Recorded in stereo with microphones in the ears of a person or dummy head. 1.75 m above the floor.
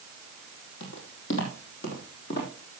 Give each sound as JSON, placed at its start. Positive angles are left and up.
{"t": 0.8, "sound": "footsteps", "side_deg": 65, "distance_m": 4.0}